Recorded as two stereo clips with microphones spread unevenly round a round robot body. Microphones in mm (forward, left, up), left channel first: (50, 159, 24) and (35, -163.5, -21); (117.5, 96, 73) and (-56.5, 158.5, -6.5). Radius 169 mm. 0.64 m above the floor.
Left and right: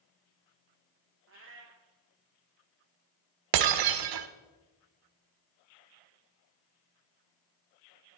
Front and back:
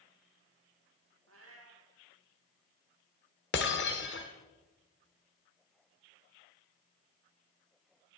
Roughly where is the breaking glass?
Right.